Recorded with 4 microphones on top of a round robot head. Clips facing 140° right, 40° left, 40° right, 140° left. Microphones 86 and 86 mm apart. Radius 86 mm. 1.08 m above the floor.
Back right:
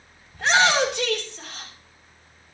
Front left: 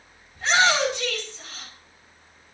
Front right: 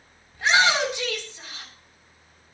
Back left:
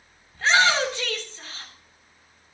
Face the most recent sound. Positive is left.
turn(degrees=-115)